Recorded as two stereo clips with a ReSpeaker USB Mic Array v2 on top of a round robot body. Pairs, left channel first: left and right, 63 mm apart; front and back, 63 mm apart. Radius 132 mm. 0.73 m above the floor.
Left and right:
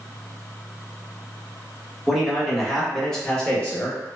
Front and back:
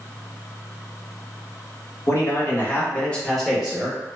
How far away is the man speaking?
About 1.4 m.